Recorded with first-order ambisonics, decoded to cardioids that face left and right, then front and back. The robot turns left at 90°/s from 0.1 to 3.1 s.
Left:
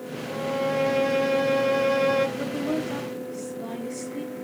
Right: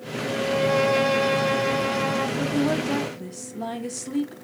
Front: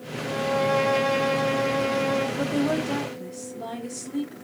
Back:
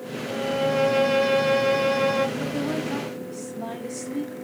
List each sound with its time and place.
0.2 s a violin: 45° right, 0.8 m; by 2.3 s 135° left, 0.8 m
2.4 s a woman speaking: 20° right, 0.6 m; by 4.3 s 85° right, 0.6 m